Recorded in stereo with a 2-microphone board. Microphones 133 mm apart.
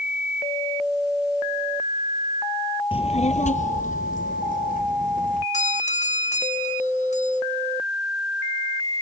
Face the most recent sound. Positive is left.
turn(degrees=60)  # may be behind; listen again after turning